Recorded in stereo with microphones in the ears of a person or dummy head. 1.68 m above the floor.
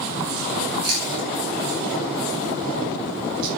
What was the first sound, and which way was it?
Chewing, 80° right.